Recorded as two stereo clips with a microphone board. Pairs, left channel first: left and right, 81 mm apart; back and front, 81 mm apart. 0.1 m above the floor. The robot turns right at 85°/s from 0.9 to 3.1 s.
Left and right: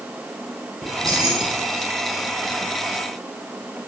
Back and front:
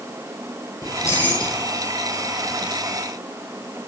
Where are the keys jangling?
140° right, 3 m; by 1.6 s 80° right, 3 m.